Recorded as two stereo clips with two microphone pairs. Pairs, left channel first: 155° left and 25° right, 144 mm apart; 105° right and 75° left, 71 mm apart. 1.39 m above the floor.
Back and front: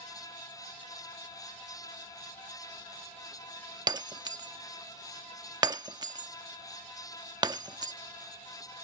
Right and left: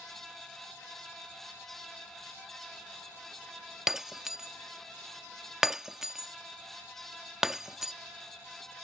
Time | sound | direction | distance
3.9 | breaking glass | straight ahead | ?